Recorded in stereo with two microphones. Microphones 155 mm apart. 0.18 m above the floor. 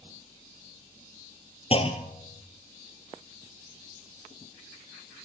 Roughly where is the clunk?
Left.